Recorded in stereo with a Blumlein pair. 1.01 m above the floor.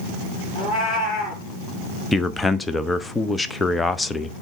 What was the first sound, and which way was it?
A cat meowing, 25° left.